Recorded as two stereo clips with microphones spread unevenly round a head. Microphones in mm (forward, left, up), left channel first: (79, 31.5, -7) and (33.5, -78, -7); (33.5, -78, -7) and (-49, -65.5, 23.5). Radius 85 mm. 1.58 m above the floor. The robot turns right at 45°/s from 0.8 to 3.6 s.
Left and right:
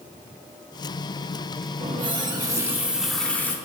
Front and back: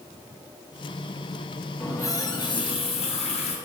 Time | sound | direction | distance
1.8 | a running tap | 80° right | 1.5 m